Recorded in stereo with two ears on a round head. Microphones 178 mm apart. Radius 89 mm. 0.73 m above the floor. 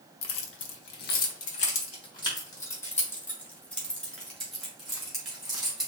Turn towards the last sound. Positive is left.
turn(degrees=-5)  # may be behind; listen again after turning